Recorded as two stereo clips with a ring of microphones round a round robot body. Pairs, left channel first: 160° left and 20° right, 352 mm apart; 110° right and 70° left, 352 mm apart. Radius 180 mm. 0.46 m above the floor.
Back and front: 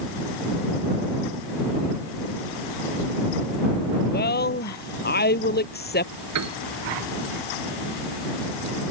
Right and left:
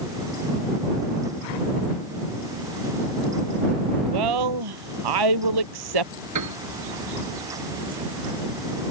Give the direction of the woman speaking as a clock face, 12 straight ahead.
9 o'clock.